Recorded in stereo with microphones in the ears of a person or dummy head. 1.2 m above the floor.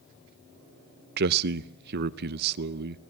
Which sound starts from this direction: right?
A man speaking, at 1.2 s.